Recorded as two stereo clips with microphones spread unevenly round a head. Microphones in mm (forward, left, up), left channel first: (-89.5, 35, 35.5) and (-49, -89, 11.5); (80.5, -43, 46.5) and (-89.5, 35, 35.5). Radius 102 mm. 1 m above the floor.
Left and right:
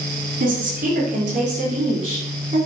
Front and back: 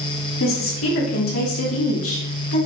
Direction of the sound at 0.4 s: 45° right.